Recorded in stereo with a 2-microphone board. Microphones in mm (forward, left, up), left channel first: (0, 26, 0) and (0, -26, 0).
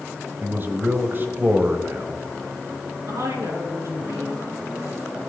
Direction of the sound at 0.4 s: 40° right (ahead or behind).